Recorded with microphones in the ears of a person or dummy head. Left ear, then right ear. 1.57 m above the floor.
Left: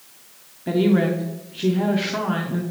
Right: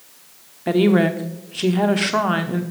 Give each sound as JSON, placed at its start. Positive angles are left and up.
{"t": 0.7, "sound": "a woman speaking", "side_deg": -35, "distance_m": 0.8}